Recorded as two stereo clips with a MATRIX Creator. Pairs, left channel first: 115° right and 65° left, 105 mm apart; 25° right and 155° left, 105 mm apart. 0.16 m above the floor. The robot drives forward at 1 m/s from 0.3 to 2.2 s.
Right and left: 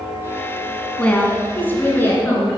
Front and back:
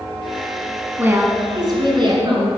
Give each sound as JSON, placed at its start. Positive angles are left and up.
{"t": 1.0, "sound": "a woman speaking", "azimuth_deg": -175, "distance_m": 1.1}